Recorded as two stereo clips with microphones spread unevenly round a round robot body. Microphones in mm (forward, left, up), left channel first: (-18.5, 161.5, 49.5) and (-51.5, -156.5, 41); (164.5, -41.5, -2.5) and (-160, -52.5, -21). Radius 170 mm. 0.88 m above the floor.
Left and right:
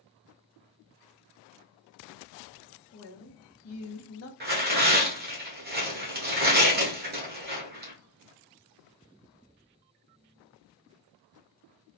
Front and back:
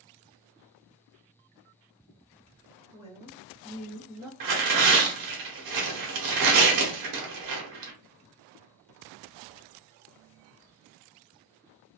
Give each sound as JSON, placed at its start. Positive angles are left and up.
{"t": 2.9, "sound": "a man speaking", "azimuth_deg": 110, "distance_m": 0.9}
{"t": 4.4, "sound": "tearing paper", "azimuth_deg": -155, "distance_m": 1.1}